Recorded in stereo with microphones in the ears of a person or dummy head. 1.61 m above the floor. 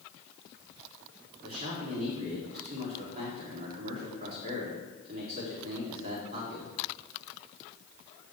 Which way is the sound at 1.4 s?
45° right (ahead or behind).